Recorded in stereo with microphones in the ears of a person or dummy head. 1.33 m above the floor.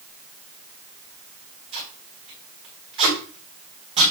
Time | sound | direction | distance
1.7 | tape being pulled | 40° right (ahead or behind) | 4 m